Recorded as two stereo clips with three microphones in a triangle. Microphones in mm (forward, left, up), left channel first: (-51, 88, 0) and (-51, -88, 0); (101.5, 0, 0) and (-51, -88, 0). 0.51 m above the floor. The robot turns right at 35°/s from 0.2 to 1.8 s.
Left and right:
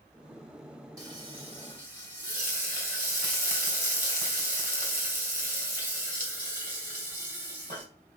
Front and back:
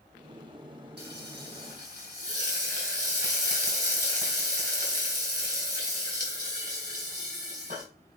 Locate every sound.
1.0 s frying: 160° right, 3 m; by 7.8 s 130° right, 3 m